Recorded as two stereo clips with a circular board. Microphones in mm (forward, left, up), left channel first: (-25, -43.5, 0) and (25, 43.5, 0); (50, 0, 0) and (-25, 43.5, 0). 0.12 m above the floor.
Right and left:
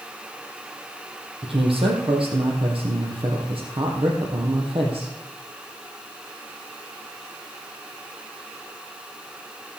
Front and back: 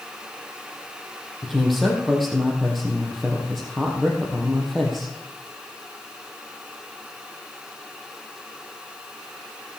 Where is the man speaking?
60° left, 3.5 m.